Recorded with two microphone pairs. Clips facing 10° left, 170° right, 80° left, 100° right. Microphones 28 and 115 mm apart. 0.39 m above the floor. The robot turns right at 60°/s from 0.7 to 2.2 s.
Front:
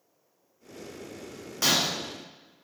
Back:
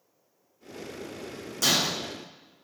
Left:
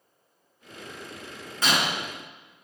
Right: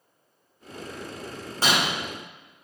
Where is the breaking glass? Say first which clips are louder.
Even, right 1 dB; 45° right, 3.5 m; by 1.9 s 30° right, 3.5 m.